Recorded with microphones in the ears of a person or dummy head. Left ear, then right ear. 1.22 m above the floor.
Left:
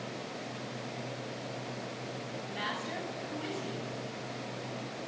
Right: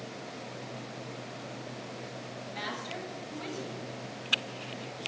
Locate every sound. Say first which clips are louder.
2.5 s a woman speaking: left 1 dB; 20° right (ahead or behind), 7.5 m